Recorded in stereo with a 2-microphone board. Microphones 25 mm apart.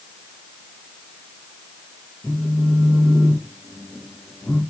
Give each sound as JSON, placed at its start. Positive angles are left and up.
{"t": 2.2, "sound": "a phone buzzing", "side_deg": 25, "distance_m": 7.5}